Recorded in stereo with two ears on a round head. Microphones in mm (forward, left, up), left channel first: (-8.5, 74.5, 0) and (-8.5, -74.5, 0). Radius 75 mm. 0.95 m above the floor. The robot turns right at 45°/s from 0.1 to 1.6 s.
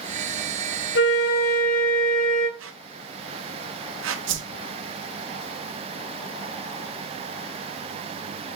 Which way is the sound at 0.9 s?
75° left (ahead or behind).